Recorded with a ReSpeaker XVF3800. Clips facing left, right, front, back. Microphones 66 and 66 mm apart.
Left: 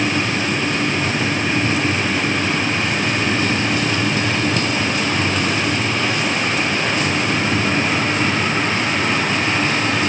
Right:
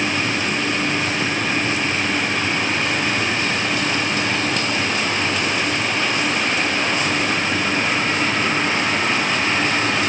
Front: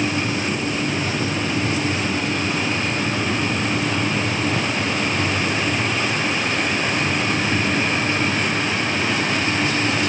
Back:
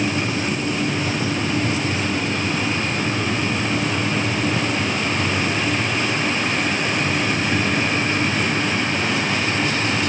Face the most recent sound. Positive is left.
No sound to turn to.